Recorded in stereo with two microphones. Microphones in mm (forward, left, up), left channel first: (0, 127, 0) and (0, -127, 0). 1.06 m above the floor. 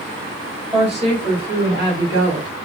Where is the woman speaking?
20° right (ahead or behind), 3.5 m; by 2.5 s 65° right (ahead or behind), 2 m.